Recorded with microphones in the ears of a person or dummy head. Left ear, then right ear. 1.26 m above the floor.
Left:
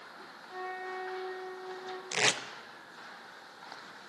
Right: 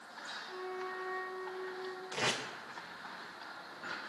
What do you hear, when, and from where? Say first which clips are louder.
0.5 s a flute: left 5 dB; 50° left (ahead or behind), 1.2 m
2.1 s tape being pulled: left 6 dB; 65° left (ahead or behind), 0.5 m